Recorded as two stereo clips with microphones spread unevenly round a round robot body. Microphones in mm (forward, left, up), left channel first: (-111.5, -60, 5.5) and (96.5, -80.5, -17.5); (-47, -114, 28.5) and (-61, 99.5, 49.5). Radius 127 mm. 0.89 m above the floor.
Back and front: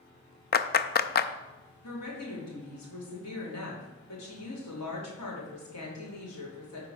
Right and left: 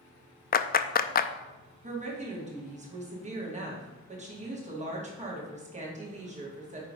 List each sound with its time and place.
0.5 s a clap: 135° right, 0.5 m
1.8 s a woman speaking: 150° left, 2.5 m